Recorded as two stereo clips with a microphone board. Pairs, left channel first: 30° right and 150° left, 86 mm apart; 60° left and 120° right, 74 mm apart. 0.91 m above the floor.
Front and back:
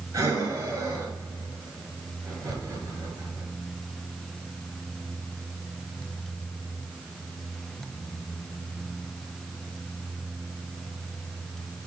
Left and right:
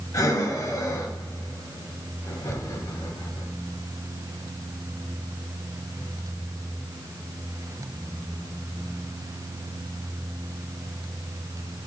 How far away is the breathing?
About 1.6 m.